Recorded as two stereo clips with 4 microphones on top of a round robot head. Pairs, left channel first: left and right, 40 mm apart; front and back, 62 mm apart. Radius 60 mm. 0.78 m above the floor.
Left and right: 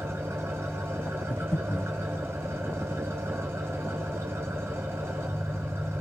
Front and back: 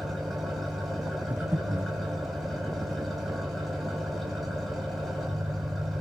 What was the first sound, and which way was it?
An engine running, 90° right.